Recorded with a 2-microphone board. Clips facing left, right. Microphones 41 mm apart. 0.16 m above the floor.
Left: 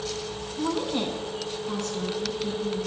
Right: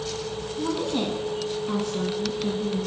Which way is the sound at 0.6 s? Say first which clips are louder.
Right 1 dB; 20° left (ahead or behind).